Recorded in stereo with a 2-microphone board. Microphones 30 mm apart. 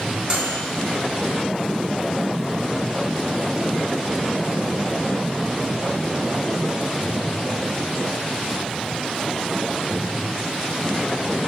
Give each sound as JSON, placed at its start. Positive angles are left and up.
{"t": 0.3, "sound": "a microwave", "side_deg": -35, "distance_m": 1.0}